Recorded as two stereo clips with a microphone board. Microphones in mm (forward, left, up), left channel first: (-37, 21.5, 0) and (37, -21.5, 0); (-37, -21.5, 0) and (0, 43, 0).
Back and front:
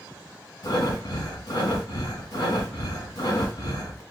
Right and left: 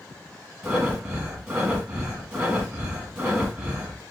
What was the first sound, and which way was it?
Breathing, 140° left.